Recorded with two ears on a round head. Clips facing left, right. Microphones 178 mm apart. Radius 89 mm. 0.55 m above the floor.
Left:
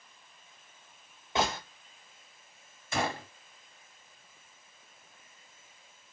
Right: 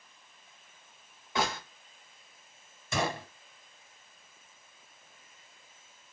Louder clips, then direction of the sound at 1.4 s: Left 2 dB; 20° left (ahead or behind).